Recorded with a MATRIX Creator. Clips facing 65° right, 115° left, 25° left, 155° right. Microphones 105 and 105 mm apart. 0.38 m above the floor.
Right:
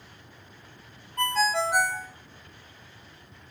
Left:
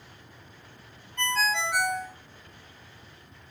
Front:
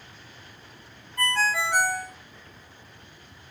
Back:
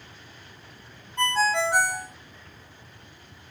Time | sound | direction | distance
1.2 | a ringtone | 100° right | 0.8 m